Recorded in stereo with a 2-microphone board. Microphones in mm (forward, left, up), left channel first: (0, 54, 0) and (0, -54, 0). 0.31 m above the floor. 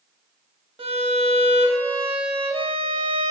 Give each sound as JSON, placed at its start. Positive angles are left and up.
{"t": 0.8, "sound": "a violin", "side_deg": -60, "distance_m": 0.6}